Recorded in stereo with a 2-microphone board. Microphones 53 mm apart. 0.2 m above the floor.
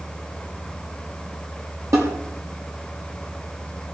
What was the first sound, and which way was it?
A snare drum, 60° right (ahead or behind).